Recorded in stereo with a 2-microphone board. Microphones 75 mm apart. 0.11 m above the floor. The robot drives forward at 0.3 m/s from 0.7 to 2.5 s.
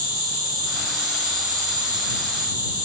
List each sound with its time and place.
0.0 s an insect: 75° right (ahead or behind), 1.8 m; by 2.9 s 85° right, 1.8 m